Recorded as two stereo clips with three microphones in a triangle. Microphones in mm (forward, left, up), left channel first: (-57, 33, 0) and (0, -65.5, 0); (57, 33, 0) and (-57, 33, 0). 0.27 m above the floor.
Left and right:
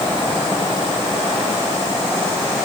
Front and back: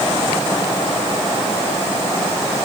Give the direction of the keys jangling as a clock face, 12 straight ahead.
No keys jangling in this recording.